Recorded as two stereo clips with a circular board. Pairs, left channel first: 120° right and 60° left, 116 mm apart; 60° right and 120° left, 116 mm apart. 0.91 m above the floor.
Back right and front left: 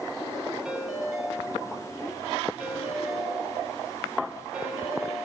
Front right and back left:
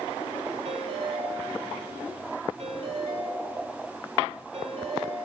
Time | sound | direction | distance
0.7 | a ringtone | 145° left | 5 m